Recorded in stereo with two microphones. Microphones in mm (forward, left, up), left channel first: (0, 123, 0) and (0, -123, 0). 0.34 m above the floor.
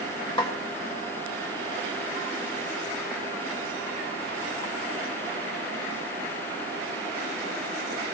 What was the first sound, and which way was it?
A snare drum, 20° left (ahead or behind).